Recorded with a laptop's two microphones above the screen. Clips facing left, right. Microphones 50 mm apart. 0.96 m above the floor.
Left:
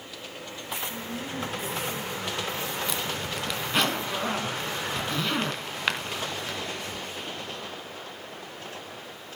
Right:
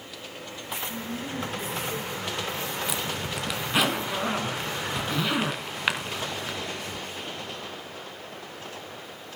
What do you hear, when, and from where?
0.9 s a woman speaking: 20° left (ahead or behind), 7 m; by 2.5 s 15° left (ahead or behind), 8 m
2.9 s a zipper: 5° right (ahead or behind), 2 m